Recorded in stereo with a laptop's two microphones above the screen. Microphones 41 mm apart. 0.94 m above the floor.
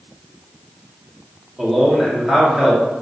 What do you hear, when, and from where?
1.6 s a man speaking: 10° right (ahead or behind), 0.9 m